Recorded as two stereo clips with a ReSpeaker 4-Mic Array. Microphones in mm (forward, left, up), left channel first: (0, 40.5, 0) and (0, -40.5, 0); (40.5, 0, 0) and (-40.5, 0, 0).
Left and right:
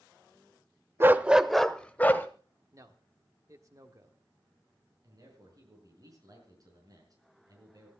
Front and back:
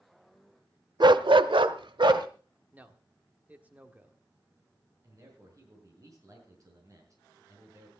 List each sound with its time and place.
1.0 s a dog barking: 150° right, 0.7 m; by 2.3 s 155° left, 1.1 m
2.7 s a man speaking: 120° right, 1.5 m
5.0 s a man speaking: 135° right, 5.5 m